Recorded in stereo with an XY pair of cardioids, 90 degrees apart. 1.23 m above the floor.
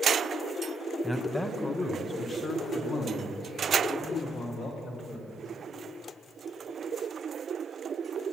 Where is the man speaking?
5° left, 1.2 m; by 5.5 s 80° left, 3 m.